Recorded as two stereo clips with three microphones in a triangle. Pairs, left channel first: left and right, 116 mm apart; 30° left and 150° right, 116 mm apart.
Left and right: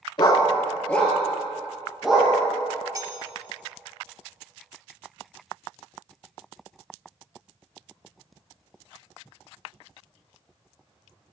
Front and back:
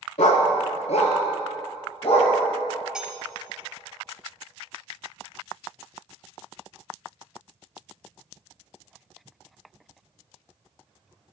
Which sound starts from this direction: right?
Cutlery clinking, at 3.0 s.